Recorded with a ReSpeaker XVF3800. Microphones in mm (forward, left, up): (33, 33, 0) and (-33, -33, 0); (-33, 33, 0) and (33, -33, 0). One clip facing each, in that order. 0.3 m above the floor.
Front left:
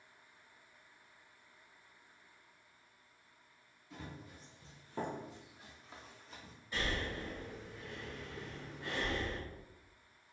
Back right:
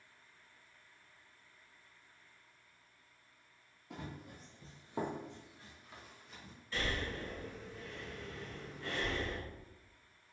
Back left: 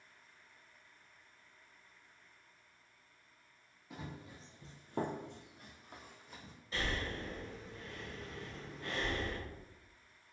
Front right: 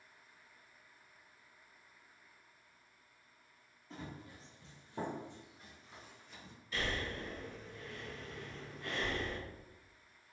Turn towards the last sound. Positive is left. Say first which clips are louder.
# even, even
turn(degrees=110)